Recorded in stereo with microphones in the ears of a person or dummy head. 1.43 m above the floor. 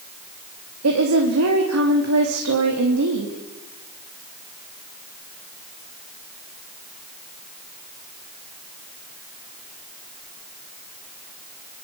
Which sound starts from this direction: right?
A woman speaking, at 0.8 s.